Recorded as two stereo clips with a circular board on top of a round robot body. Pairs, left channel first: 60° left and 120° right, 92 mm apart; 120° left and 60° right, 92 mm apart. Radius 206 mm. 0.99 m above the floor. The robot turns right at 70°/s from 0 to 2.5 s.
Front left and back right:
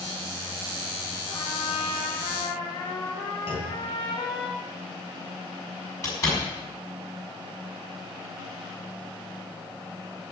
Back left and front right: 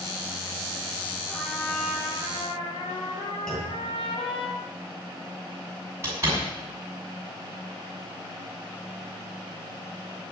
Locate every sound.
1.3 s a trumpet: 5° left, 5 m; by 4.5 s 95° left, 5 m
3.5 s a clunk: 35° left, 4 m
6.0 s a door slam: 5° left, 5.5 m